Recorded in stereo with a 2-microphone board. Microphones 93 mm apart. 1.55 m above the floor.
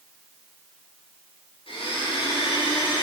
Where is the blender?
75° left (ahead or behind), 3 m.